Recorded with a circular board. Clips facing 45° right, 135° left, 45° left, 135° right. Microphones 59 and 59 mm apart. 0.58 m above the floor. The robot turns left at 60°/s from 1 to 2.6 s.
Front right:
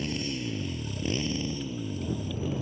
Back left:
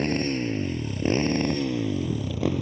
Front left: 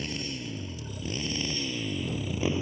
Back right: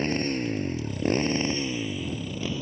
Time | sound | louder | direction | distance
0.0 | a motorcycle | back left 7 dB, back right 9 dB | 175° left | ?